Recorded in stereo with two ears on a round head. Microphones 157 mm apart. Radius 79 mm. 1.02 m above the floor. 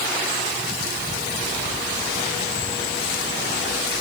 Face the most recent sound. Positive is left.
No sound to turn to.